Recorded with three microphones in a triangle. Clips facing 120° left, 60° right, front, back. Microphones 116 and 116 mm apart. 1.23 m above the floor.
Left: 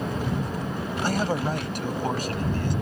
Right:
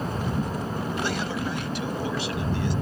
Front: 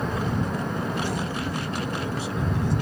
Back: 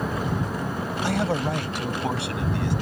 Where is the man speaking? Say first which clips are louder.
Left 3 dB, back 4 dB; 165° left; by 2.7 s 160° left.